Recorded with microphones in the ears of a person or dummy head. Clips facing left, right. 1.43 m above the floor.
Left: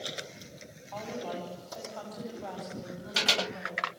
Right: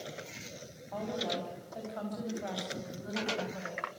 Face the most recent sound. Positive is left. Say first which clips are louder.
# right 1 dB
turn(degrees=-30)  # may be behind; listen again after turning